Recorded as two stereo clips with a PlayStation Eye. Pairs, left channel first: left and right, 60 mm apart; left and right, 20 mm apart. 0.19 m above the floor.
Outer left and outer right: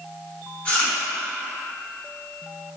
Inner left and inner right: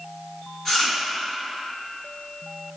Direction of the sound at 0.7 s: 20° left (ahead or behind).